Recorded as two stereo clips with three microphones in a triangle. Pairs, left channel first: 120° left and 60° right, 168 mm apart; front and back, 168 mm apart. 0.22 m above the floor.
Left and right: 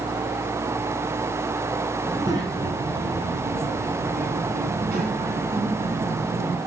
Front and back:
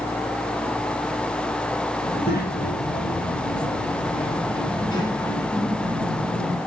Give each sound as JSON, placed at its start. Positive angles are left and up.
{"t": 2.0, "sound": "a child speaking", "azimuth_deg": 10, "distance_m": 1.6}